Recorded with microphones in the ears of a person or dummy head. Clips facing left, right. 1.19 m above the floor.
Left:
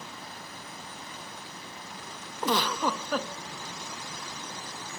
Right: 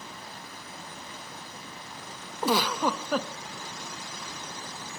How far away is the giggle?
About 0.7 m.